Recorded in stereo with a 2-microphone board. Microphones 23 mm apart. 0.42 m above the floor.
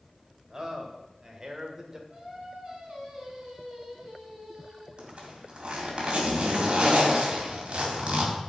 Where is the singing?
30° right (ahead or behind), 4 m.